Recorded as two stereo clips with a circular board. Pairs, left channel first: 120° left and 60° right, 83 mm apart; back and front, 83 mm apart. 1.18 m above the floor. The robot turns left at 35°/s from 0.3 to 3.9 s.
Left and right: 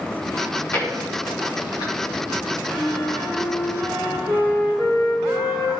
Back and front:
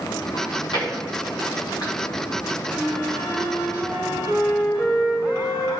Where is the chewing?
160° right, 2.5 m; by 1.9 s 145° left, 2.5 m.